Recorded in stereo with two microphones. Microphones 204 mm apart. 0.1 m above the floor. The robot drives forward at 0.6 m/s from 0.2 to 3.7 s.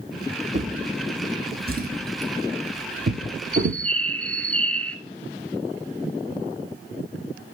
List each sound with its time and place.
0.5 s a drawer: 35° right (ahead or behind), 2.5 m; by 3.8 s 60° right (ahead or behind), 1.5 m
3.5 s a bird: 5° left (ahead or behind), 0.7 m